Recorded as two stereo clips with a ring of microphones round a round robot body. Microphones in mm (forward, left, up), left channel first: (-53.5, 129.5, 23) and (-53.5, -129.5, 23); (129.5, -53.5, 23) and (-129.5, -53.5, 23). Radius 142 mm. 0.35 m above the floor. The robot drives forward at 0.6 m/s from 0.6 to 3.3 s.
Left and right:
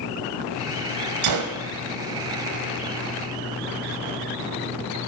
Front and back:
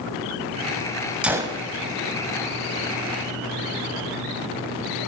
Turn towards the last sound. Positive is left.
turn(degrees=-155)